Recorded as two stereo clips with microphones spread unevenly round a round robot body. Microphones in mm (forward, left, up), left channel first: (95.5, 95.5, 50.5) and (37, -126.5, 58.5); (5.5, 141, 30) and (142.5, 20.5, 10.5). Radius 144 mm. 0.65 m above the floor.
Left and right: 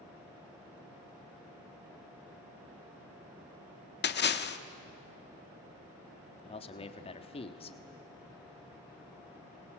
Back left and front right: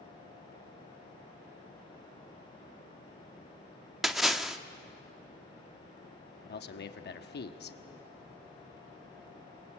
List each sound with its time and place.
4.0 s a splash: 45° left, 1.2 m
6.4 s a man speaking: 135° left, 1.3 m